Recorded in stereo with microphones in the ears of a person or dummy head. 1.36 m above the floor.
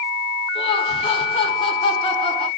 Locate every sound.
0.6 s laughter: 30° left (ahead or behind), 0.8 m